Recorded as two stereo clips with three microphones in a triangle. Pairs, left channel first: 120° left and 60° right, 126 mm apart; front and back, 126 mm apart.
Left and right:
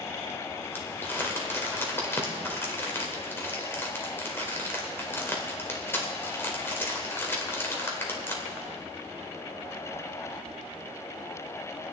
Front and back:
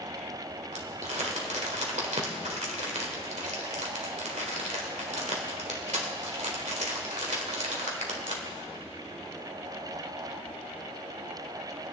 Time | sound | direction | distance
0.7 | crumpling | 170° right | 1.9 m